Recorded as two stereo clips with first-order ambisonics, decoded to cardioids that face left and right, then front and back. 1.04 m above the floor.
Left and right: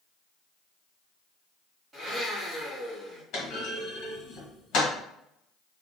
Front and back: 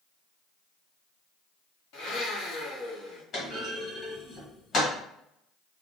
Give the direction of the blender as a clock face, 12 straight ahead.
12 o'clock.